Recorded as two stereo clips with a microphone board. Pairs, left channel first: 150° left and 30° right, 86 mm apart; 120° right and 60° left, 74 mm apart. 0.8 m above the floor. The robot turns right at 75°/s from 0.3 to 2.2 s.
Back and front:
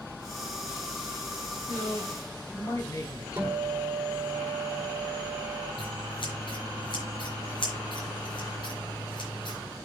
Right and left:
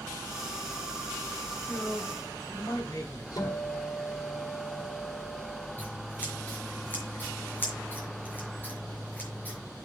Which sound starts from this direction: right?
A guitar, at 3.4 s.